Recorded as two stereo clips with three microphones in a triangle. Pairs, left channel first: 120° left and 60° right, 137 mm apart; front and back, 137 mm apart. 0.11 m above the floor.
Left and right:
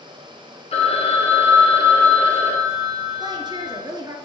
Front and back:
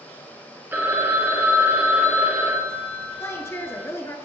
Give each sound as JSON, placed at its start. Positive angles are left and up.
{"t": 0.7, "sound": "a phone ringing", "azimuth_deg": 110, "distance_m": 1.3}
{"t": 3.2, "sound": "a woman speaking", "azimuth_deg": -50, "distance_m": 1.3}